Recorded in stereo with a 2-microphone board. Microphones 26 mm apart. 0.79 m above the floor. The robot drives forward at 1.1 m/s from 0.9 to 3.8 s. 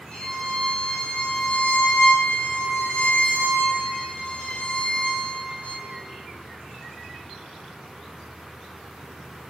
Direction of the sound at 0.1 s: 35° left (ahead or behind).